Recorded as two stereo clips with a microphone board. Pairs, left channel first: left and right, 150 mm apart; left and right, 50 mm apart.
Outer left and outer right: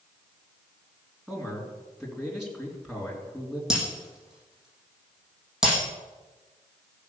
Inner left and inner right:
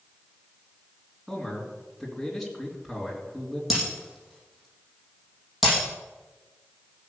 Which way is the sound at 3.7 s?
5° right (ahead or behind).